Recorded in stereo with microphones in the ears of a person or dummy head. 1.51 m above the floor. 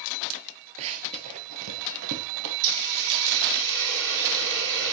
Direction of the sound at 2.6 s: 85° right.